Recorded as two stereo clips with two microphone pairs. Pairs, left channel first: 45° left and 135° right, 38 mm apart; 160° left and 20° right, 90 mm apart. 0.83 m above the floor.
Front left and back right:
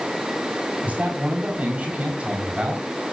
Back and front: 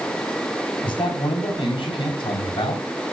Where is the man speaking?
Straight behind, 5.5 m; by 2.8 s 170° left, 5 m.